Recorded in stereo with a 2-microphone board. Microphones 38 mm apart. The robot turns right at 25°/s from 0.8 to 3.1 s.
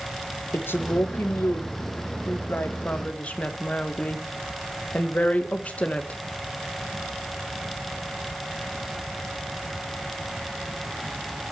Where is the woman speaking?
85° left, 1.3 m; by 6.2 s 140° left, 1.3 m.